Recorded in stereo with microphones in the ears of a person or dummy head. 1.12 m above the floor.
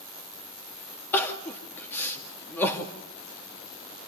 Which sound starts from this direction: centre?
Crying, at 1.1 s.